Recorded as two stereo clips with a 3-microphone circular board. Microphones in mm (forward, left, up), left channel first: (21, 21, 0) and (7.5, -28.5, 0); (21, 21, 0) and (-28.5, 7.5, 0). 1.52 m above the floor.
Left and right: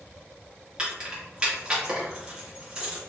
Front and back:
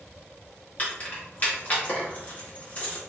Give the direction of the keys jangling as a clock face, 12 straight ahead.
1 o'clock.